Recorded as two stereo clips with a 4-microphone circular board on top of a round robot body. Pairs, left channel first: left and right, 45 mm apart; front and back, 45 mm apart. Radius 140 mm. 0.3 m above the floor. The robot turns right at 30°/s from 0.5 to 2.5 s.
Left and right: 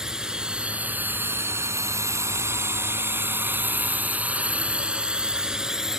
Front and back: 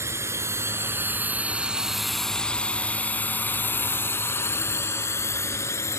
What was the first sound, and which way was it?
A drone, 165° right.